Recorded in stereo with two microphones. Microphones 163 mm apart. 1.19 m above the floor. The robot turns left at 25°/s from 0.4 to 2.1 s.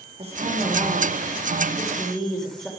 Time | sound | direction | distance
0.2 | a woman speaking | 140° right | 3.5 m